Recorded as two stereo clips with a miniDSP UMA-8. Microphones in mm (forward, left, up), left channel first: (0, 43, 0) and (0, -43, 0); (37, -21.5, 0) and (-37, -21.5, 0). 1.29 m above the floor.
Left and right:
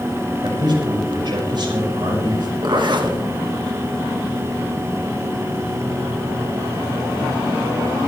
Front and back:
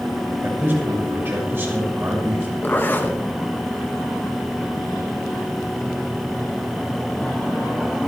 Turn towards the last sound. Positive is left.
turn(degrees=-60)